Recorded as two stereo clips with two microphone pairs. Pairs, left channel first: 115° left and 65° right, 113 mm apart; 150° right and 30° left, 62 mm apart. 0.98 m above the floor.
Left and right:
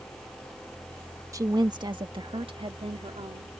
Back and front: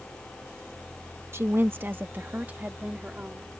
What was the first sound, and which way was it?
A woman speaking, 10° right.